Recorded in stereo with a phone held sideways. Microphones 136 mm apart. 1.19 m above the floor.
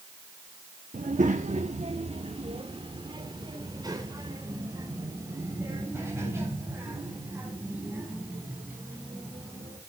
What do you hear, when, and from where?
0.9 s a child speaking: 65° right (ahead or behind), 1.0 m; by 9.8 s 15° right (ahead or behind), 6.5 m